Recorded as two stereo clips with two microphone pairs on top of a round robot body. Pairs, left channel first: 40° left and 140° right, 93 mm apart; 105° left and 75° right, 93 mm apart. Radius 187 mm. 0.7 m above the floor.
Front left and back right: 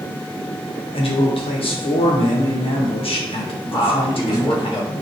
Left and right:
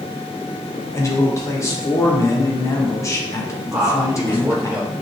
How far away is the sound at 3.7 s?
About 4.5 m.